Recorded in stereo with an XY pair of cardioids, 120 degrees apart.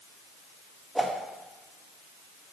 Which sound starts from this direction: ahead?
A whoosh, at 0.9 s.